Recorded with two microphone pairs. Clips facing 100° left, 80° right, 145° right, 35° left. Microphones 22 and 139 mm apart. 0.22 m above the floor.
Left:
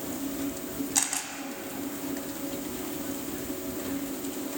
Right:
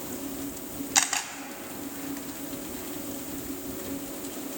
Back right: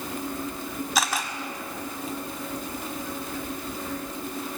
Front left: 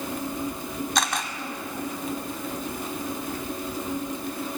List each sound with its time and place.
0.9 s a camera shutter: 60° right, 1.5 m